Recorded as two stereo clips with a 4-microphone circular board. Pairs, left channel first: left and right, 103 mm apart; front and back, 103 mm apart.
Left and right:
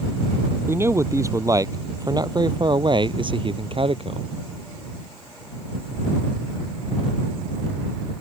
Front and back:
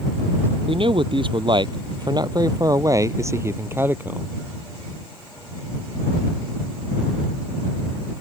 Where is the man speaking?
155° right; by 4.3 s 105° right.